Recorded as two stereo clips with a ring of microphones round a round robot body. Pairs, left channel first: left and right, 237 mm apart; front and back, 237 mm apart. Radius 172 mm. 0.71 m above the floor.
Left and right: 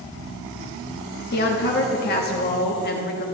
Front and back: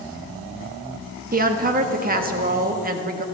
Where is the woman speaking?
135° left, 0.9 m.